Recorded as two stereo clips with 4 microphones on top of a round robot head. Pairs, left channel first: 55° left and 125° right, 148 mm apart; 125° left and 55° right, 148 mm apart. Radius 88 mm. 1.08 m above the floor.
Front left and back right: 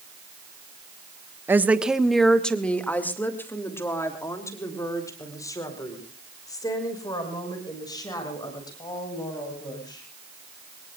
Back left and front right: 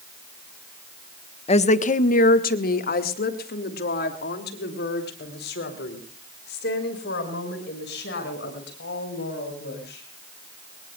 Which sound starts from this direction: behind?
A woman speaking, at 1.5 s.